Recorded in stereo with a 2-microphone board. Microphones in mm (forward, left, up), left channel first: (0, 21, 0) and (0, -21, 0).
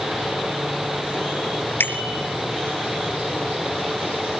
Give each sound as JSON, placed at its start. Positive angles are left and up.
{"t": 1.8, "sound": "a bicycle bell", "side_deg": 55, "distance_m": 4.0}